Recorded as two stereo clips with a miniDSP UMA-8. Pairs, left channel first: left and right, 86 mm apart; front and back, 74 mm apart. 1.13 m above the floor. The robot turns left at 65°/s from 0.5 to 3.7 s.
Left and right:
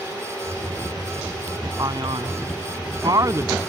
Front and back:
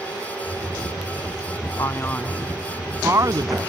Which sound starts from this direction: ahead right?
A man speaking, at 1.8 s.